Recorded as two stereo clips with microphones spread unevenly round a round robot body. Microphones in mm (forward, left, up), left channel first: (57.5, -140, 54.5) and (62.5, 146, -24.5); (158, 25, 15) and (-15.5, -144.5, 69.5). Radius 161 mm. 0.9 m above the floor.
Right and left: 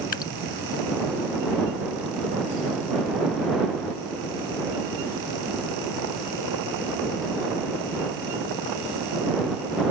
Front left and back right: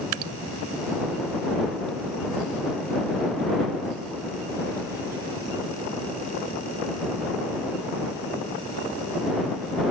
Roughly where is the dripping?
Behind.